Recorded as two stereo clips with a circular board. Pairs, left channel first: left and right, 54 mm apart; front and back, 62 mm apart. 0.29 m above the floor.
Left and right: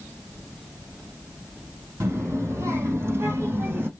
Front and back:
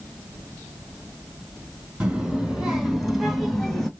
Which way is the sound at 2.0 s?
110° right.